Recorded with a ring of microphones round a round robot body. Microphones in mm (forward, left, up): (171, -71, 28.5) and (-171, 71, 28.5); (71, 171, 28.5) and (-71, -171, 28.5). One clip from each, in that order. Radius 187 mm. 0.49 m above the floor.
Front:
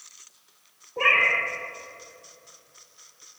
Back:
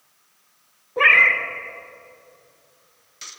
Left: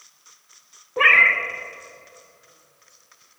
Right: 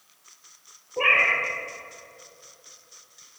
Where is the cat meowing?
105° left, 0.7 m.